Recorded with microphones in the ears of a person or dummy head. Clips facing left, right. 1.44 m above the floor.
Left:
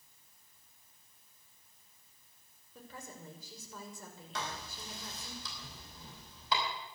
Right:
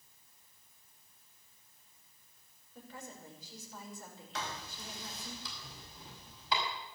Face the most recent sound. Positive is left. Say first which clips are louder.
# even
turn(degrees=85)